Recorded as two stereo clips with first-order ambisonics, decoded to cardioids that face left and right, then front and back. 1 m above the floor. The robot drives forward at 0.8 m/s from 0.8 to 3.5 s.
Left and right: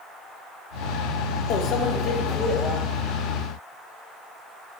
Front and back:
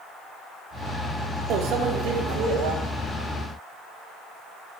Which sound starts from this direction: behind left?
A microwave, at 1.5 s.